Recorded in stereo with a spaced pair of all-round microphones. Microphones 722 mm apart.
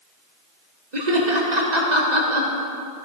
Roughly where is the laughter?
Right.